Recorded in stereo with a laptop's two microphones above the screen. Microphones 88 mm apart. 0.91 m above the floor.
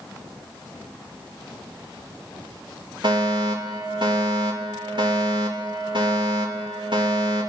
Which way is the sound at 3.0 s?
65° right (ahead or behind).